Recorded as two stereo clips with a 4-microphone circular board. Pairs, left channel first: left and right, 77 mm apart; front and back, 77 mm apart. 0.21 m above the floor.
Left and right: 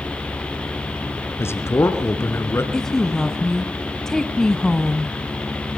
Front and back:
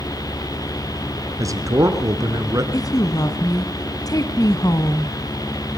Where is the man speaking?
140° left, 3 m.